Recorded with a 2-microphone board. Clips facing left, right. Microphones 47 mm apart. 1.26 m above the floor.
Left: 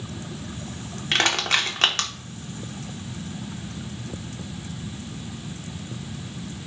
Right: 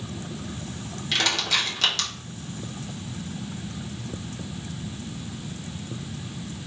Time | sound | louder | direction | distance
1.1 | crushing | left 3 dB | 45° left (ahead or behind) | 0.8 m